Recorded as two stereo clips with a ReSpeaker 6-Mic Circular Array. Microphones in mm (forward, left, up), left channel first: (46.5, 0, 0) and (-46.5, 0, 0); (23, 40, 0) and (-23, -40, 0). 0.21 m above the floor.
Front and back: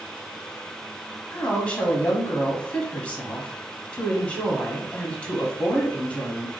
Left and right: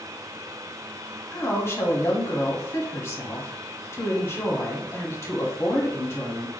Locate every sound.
1.3 s a woman speaking: 55° left, 1.1 m